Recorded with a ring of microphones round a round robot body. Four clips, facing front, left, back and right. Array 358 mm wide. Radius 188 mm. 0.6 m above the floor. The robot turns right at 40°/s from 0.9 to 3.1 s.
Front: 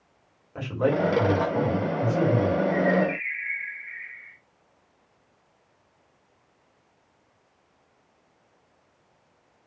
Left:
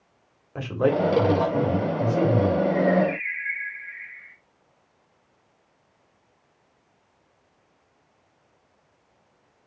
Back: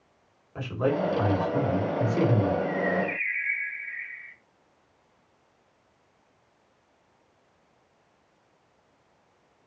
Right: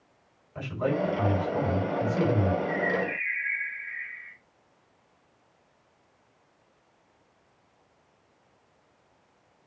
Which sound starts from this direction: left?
A man speaking, at 0.6 s.